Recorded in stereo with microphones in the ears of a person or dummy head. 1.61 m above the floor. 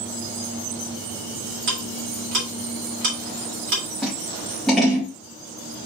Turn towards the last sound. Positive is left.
turn(degrees=5)  # may be behind; listen again after turning